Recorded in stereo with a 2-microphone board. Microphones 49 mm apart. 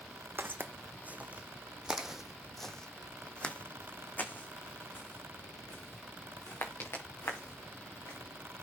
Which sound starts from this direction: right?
Footsteps, at 0.4 s.